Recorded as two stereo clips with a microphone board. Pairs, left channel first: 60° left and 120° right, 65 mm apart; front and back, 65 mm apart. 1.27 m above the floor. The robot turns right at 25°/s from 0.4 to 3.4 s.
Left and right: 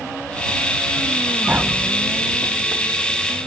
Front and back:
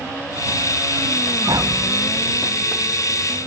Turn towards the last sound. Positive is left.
turn(degrees=-140)